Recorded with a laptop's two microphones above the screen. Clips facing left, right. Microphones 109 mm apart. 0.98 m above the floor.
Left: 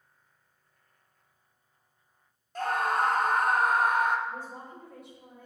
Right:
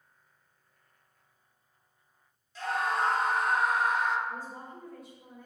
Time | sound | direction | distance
2.5 | a scream | 50° left (ahead or behind) | 0.8 m
4.3 | a woman speaking | 65° left (ahead or behind) | 3 m